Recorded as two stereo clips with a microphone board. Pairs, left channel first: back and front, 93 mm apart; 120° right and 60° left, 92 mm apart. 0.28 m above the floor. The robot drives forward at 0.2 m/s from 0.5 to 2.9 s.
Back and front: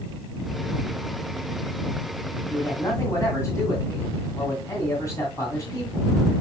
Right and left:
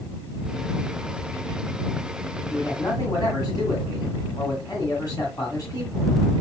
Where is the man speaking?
155° right, 1.7 m.